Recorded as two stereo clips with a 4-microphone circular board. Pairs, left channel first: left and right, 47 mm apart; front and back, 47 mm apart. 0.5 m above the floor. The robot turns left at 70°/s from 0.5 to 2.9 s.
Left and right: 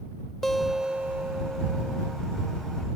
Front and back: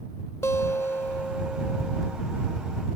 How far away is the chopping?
No chopping in this recording.